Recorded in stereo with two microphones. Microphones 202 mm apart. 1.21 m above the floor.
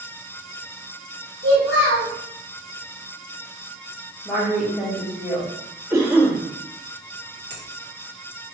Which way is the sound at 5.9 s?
15° right (ahead or behind).